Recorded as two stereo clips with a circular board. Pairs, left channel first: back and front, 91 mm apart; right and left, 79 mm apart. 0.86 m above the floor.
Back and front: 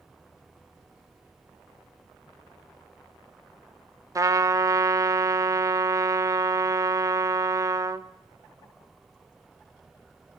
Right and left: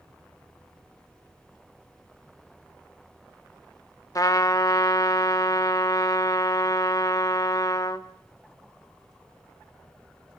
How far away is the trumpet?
About 1.0 m.